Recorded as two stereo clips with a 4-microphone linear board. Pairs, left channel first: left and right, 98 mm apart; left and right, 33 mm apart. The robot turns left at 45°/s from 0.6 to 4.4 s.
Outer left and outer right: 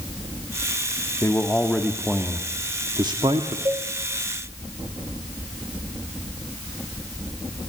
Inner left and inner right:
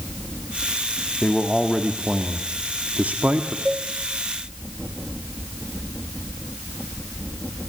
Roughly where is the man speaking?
Ahead left.